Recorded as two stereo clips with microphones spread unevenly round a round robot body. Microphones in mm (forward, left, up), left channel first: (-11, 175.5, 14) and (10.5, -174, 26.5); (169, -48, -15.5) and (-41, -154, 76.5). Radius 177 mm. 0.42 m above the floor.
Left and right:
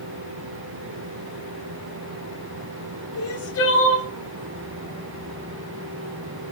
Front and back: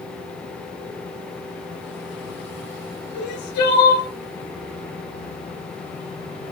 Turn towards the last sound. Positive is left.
turn(degrees=40)